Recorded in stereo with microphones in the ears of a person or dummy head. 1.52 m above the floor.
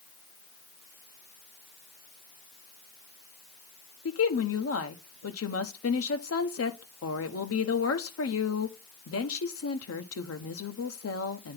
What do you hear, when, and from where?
4.0 s a woman speaking: 80° left, 1.0 m